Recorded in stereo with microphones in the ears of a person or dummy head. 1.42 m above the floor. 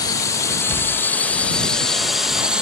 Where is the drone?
25° left (ahead or behind); by 2.6 s centre (ahead or behind).